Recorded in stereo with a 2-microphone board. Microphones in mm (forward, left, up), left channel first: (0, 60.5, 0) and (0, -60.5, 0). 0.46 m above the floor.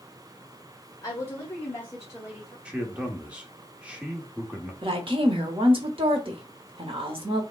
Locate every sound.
1.0 s a woman speaking: 30° left (ahead or behind), 1.5 m; by 2.5 s 10° left (ahead or behind), 1.8 m
2.6 s a man speaking: 10° right (ahead or behind), 1.0 m
4.8 s a woman speaking: 50° right (ahead or behind), 1.0 m